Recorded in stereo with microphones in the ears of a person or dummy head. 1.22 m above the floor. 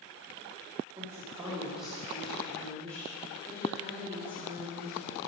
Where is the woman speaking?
15° right (ahead or behind), 2 m; by 5.2 s 10° left (ahead or behind), 5 m.